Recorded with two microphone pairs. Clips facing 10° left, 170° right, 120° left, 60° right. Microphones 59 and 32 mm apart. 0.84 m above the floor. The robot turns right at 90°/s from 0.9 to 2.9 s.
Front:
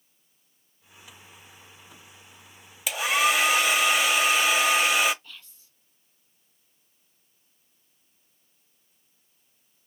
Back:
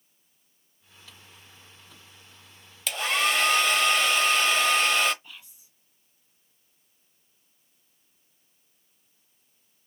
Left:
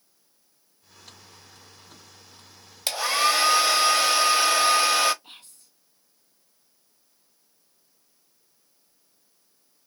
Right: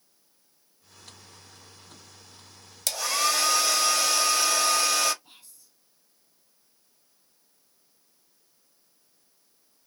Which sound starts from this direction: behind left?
Whispering, at 5.2 s.